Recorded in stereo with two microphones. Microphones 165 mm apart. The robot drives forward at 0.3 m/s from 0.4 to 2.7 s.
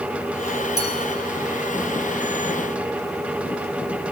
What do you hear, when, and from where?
0.8 s a clink: 75° left (ahead or behind), 1.6 m